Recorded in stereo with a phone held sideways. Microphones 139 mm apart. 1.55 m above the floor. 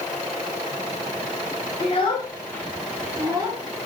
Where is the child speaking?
45° left (ahead or behind), 0.7 m; by 3.6 s 40° right (ahead or behind), 0.8 m.